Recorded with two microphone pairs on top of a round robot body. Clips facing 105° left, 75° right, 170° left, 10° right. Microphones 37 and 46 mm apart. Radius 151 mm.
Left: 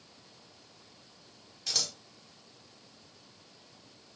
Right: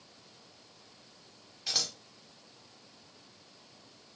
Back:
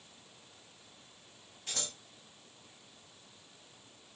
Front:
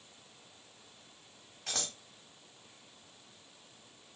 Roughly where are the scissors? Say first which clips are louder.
Even, front 2 dB; ahead.